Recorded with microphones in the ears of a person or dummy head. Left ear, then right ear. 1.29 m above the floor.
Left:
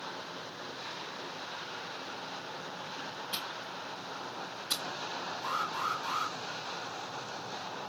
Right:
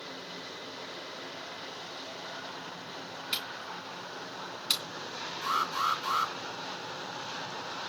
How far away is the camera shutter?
About 3 m.